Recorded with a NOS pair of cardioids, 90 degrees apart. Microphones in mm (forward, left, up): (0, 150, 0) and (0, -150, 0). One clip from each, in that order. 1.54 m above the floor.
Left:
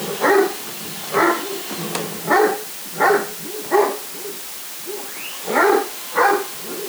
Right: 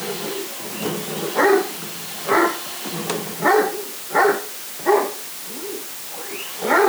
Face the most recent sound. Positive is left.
No sound to turn to.